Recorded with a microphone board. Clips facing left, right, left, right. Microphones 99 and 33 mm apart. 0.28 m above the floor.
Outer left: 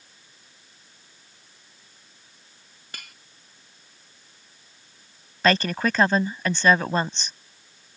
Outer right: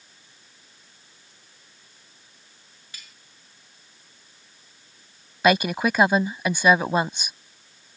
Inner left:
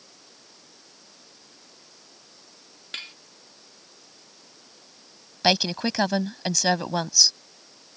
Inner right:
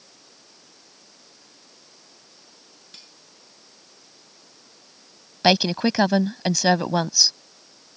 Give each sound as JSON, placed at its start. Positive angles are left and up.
{"t": 2.9, "sound": "cutlery clinking", "side_deg": 60}
{"t": 5.4, "sound": "a woman speaking", "side_deg": -10}